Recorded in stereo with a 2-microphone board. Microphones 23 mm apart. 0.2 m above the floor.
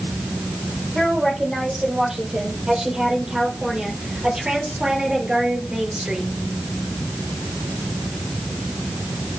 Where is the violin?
No violin in this recording.